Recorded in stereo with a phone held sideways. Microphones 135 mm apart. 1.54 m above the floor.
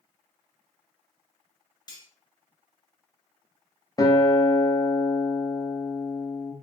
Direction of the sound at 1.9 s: 30° left (ahead or behind).